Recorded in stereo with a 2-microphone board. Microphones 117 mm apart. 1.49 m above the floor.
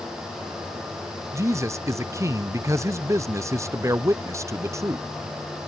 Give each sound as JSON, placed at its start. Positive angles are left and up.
{"t": 1.3, "sound": "a man speaking", "side_deg": -25}